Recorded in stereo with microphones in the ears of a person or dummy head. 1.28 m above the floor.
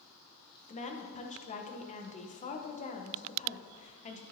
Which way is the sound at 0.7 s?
35° left (ahead or behind).